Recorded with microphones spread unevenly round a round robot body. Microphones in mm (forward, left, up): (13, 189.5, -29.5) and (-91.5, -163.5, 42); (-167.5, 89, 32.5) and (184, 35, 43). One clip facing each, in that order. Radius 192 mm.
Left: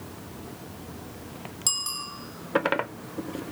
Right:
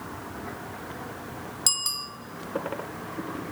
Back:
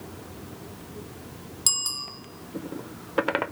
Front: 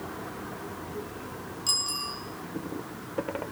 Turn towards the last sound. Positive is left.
turn(degrees=-165)